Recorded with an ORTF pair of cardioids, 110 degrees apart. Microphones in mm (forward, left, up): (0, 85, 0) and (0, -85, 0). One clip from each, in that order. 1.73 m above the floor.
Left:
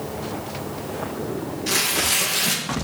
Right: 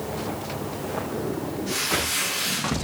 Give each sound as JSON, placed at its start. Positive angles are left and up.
{"t": 1.7, "sound": "tearing paper", "azimuth_deg": 70, "distance_m": 2.0}